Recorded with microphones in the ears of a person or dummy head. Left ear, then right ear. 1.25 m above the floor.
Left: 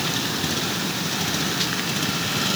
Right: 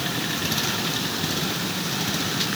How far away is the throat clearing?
I don't hear throat clearing.